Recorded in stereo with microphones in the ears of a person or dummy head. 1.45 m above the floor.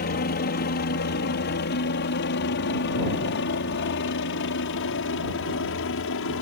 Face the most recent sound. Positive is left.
turn(degrees=60)  # may be behind; listen again after turning